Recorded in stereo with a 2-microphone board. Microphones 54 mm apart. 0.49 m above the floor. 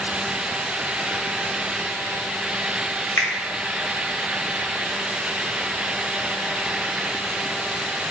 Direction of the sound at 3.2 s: 45° left (ahead or behind).